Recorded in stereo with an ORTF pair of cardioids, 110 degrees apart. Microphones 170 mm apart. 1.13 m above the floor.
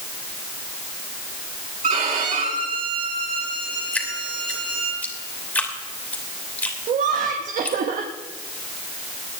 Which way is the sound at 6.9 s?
50° right.